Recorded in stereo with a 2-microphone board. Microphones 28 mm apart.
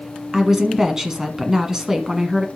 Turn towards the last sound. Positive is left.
turn(degrees=-20)  # may be behind; listen again after turning